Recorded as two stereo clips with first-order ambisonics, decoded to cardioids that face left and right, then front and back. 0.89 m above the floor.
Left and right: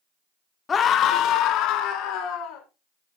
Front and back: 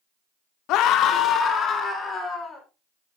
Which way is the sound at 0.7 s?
25° left.